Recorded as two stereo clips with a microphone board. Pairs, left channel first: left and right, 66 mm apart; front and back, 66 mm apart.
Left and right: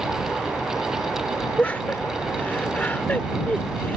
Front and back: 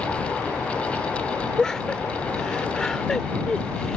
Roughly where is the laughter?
Left.